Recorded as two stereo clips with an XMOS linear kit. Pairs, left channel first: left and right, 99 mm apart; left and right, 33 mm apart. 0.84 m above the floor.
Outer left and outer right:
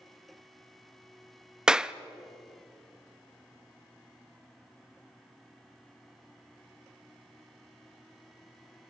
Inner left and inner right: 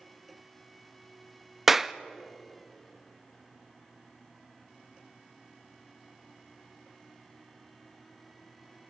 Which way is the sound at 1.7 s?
5° right (ahead or behind).